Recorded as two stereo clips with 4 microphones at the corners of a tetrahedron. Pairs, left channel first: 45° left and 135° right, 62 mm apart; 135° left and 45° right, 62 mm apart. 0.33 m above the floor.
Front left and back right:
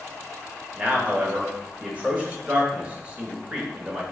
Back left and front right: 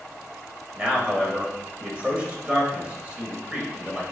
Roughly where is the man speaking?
Right.